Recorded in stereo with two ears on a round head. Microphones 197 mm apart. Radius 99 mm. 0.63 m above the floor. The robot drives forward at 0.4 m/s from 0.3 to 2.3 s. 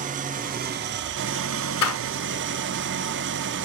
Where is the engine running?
35° right (ahead or behind), 0.8 m; by 3.6 s 55° right (ahead or behind), 0.6 m.